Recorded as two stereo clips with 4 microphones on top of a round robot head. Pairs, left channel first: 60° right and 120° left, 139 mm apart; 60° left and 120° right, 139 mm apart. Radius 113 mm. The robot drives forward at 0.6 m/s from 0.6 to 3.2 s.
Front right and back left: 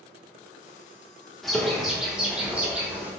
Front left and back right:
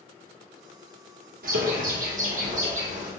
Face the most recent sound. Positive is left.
turn(degrees=-160)